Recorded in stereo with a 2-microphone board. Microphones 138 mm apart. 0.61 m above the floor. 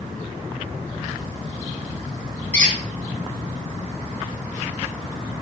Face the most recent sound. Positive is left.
turn(degrees=20)  # may be behind; listen again after turning